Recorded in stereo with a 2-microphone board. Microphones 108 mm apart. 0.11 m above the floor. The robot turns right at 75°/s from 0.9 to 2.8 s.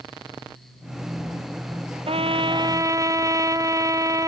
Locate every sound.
2.1 s a trumpet: 90° right; by 4.3 s 35° right